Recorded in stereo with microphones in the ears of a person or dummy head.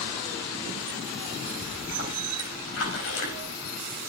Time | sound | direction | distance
1.6 | a splash | 80° left | 4.5 m